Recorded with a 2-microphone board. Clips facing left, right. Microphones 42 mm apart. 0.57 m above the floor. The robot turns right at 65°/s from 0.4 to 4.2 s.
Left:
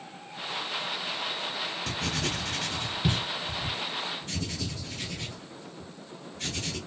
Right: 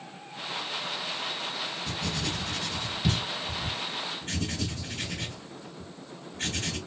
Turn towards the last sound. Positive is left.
turn(degrees=-45)  # may be behind; listen again after turning